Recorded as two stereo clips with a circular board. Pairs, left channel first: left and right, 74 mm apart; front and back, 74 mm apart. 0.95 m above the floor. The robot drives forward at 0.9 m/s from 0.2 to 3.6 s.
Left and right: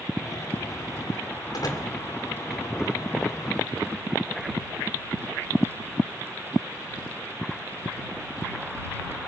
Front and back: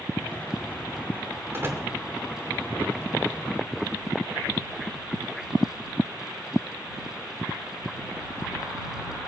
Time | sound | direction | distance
1.5 | a door slam | 120° left | 2.5 m